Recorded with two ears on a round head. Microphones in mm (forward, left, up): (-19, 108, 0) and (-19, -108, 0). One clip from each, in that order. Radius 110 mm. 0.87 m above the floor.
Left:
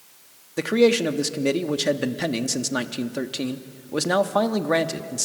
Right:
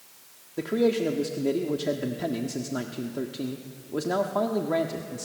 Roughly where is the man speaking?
Left.